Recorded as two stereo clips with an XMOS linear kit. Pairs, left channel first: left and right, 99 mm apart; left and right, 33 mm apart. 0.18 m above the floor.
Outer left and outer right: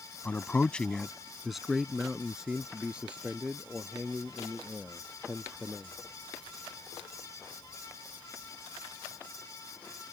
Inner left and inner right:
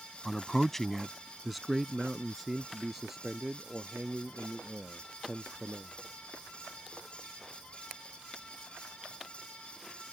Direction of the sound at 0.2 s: 20° left (ahead or behind).